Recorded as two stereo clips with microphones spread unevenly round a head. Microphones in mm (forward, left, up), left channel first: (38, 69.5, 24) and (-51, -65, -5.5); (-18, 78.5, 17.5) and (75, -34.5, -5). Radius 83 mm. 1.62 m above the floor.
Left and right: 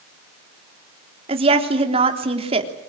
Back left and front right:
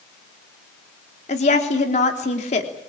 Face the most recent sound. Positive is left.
turn(degrees=180)